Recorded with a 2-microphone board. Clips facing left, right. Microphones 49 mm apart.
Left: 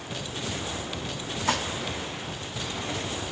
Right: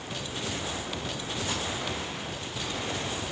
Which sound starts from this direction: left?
Dishes clattering, at 1.5 s.